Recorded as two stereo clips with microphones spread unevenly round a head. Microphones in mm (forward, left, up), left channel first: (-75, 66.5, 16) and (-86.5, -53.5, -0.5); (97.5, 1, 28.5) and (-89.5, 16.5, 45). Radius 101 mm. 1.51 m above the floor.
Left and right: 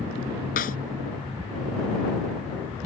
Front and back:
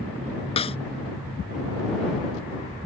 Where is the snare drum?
55° left.